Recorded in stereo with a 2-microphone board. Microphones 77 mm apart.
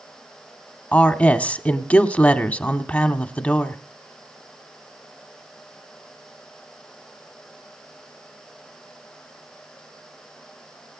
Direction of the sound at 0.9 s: 20° left (ahead or behind).